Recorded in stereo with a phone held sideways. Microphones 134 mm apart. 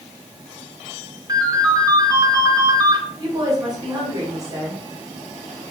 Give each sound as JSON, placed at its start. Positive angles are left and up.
{"t": 1.3, "sound": "a ringtone", "side_deg": -30, "distance_m": 1.1}
{"t": 3.2, "sound": "a woman speaking", "side_deg": -30, "distance_m": 2.5}